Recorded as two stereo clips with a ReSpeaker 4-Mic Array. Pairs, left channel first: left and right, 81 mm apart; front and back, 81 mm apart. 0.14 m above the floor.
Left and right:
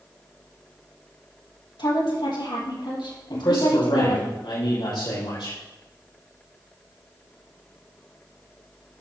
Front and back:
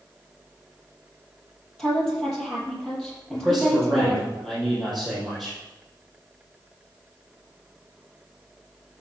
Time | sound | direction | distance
1.8 | a woman speaking | 85° left | 5 m
3.3 | a man speaking | 90° left | 6.5 m